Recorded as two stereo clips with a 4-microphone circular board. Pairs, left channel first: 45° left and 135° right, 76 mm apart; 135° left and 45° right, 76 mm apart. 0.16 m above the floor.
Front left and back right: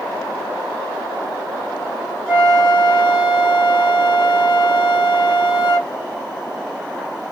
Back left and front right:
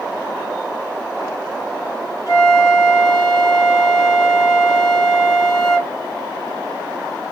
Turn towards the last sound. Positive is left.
turn(degrees=160)